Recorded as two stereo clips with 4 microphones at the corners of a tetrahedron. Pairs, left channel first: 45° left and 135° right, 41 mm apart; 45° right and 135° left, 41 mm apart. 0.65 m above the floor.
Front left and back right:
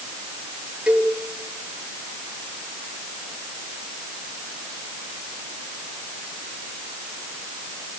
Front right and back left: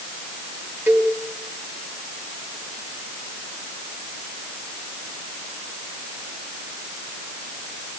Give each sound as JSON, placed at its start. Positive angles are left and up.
{"t": 0.9, "sound": "a cowbell", "azimuth_deg": 155, "distance_m": 4.0}